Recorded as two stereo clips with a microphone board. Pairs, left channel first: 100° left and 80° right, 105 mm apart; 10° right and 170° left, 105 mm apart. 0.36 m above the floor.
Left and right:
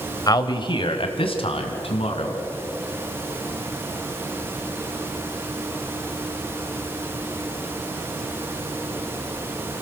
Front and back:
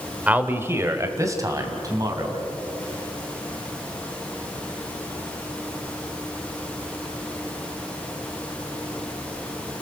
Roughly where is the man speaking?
Left.